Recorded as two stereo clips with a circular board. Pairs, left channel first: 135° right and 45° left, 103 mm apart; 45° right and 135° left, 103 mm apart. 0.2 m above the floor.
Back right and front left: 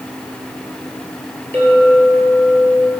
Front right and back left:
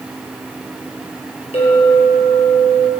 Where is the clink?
65° right, 3.5 m.